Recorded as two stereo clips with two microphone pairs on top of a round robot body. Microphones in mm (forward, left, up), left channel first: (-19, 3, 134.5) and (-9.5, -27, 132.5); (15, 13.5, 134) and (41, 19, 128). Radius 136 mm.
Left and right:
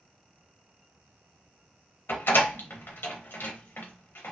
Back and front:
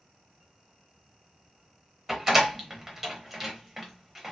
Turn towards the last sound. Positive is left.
turn(degrees=90)